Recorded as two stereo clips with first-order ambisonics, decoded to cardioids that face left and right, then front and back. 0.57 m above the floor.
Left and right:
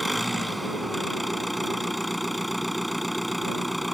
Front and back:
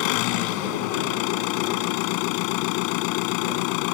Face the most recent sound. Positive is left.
turn(degrees=0)